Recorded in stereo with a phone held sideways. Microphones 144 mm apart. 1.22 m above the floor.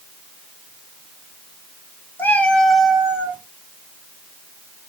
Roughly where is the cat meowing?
Centre.